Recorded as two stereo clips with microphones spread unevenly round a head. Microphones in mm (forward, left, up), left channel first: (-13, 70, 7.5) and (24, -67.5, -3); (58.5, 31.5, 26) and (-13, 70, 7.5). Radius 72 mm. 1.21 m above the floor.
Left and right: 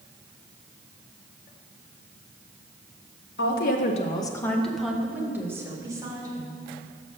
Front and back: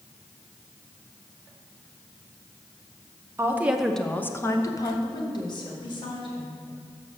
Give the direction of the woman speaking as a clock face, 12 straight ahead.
9 o'clock.